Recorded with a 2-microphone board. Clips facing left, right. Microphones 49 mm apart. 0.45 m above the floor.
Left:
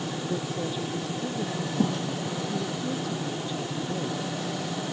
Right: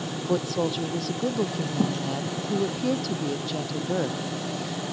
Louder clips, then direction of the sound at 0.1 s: Right 9 dB; 80° right.